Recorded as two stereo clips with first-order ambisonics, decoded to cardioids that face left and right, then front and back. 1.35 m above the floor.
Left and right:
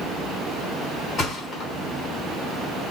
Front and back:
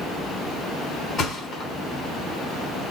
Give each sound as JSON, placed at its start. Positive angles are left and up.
{"t": 1.2, "sound": "a thud", "azimuth_deg": 50, "distance_m": 1.1}